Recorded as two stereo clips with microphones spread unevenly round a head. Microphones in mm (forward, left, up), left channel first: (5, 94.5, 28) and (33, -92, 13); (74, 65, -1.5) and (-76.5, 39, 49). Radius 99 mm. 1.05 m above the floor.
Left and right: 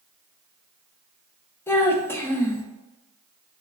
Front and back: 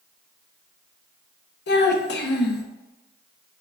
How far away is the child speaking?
About 0.7 m.